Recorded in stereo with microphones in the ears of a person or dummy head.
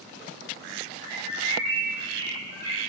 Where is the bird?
35° right (ahead or behind), 7 m.